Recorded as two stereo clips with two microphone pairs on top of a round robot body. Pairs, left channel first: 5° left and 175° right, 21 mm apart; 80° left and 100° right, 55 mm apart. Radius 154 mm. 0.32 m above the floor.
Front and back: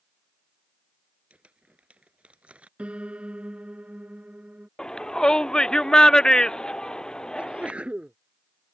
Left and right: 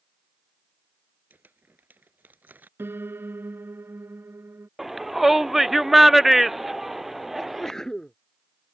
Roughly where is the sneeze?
Behind.